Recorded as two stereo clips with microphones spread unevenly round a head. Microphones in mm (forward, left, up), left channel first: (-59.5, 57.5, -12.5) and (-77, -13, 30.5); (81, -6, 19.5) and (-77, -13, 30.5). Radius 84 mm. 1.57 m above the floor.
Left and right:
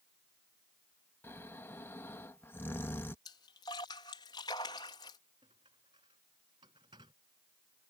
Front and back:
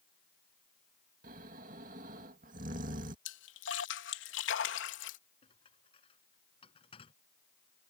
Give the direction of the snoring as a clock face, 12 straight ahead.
7 o'clock.